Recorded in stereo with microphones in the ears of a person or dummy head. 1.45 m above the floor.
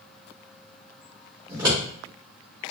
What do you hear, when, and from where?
1.5 s scissors: 25° right (ahead or behind), 2.5 m